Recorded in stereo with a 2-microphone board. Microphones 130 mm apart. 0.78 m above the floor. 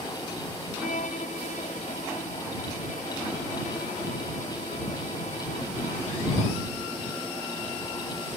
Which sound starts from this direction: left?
A violin, at 0.8 s.